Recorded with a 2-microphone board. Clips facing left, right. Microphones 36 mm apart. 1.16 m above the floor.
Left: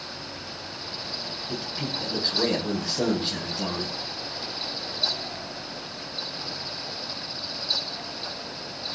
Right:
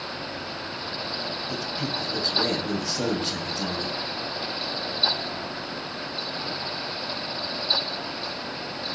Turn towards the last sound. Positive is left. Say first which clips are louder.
# even
turn(degrees=25)  # may be behind; listen again after turning